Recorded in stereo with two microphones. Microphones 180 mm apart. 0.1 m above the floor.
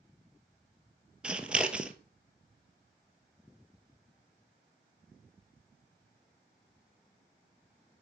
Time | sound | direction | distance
1.2 | scissors | 5° right (ahead or behind) | 1.0 m